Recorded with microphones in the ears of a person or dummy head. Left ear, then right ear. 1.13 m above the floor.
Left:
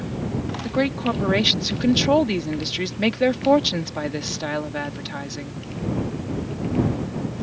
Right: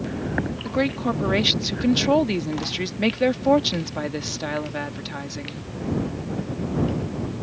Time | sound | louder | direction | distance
0.7 | a woman speaking | left 2 dB | 5° left (ahead or behind) | ?